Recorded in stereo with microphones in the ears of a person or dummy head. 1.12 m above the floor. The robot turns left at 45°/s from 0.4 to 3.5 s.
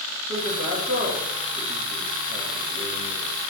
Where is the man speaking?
110° right, 2 m; by 3.3 s 120° left, 2 m.